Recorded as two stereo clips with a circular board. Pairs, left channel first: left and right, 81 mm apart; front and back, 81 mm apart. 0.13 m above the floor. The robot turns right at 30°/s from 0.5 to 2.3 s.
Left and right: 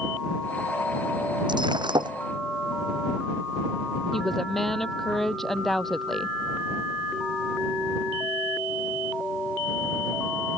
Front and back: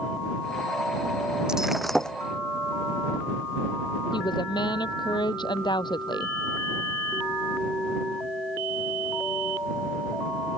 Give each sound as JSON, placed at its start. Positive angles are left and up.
{"t": 1.5, "sound": "breaking glass", "azimuth_deg": -100}
{"t": 4.1, "sound": "a woman speaking", "azimuth_deg": 5}